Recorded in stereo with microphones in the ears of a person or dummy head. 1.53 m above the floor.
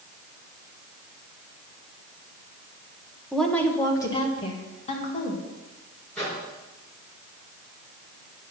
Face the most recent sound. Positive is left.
turn(degrees=0)  # may be behind; listen again after turning